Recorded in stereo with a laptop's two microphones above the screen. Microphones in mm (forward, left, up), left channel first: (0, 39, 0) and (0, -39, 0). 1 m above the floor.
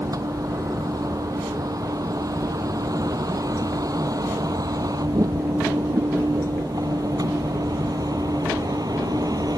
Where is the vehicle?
55° right (ahead or behind); by 9.6 s 60° right (ahead or behind).